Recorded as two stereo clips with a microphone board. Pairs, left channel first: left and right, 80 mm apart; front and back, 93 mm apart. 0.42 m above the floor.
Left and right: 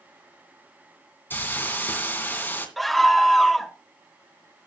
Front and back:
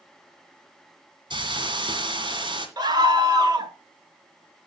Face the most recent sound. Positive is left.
turn(degrees=180)